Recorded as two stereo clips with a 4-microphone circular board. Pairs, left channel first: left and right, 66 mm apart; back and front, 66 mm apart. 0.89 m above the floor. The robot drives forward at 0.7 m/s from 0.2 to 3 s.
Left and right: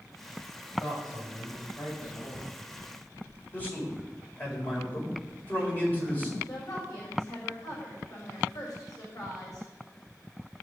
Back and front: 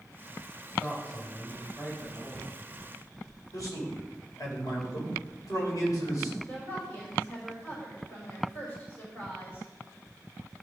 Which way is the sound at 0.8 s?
105° left.